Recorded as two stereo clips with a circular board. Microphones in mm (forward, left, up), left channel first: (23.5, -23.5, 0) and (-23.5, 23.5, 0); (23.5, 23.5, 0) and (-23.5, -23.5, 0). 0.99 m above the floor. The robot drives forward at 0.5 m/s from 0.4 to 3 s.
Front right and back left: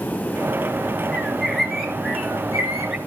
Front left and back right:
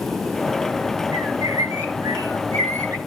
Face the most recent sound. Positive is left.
turn(degrees=-140)